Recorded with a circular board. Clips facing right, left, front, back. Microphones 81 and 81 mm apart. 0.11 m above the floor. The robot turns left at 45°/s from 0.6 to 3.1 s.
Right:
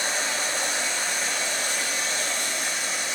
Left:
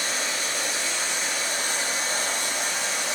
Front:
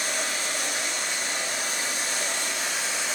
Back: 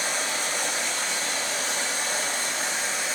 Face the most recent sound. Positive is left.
turn(degrees=100)